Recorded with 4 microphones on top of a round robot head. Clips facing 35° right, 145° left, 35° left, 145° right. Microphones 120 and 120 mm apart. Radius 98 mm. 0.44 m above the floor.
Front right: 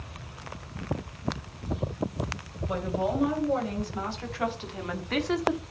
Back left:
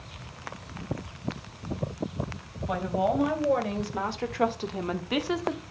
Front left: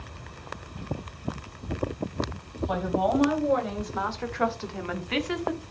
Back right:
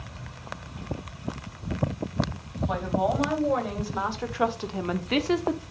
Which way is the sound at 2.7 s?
120° left.